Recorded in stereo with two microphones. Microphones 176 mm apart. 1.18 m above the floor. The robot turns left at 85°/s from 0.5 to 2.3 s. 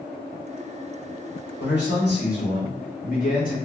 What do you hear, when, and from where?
1.6 s a man speaking: 110° left, 1.7 m; by 3.6 s 55° left, 1.7 m